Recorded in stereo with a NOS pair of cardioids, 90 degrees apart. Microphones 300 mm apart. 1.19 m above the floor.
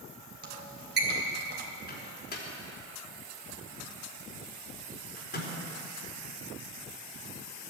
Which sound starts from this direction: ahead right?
A squeak, at 0.4 s.